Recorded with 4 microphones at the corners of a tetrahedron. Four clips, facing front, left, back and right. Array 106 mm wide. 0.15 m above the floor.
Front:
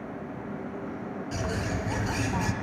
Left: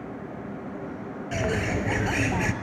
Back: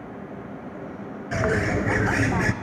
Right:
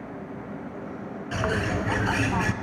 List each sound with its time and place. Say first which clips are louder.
1.3 s a bird: even, back 10 dB; 175° right, 0.5 m